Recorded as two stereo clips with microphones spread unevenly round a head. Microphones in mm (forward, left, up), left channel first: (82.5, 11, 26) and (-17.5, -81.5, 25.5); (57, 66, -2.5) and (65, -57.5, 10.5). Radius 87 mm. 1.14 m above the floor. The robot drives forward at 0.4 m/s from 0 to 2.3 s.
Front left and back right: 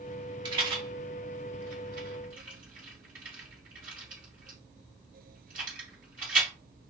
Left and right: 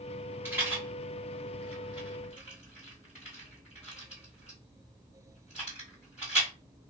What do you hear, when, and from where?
0.5 s a rattle: 130° right, 0.9 m; by 6.5 s 160° right, 1.3 m